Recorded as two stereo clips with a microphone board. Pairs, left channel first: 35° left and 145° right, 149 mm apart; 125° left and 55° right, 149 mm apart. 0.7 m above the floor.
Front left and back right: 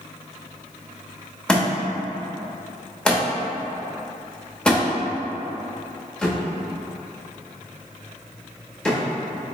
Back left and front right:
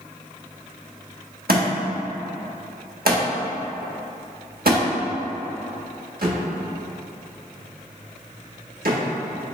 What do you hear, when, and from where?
1.5 s a thud: 50° right, 0.9 m